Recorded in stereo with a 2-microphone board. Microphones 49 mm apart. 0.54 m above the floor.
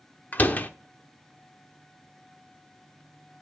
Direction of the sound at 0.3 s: 35° left (ahead or behind).